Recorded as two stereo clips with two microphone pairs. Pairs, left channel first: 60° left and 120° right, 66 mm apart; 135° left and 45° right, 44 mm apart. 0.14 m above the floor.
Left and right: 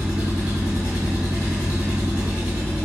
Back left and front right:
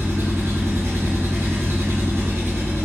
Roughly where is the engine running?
Ahead right.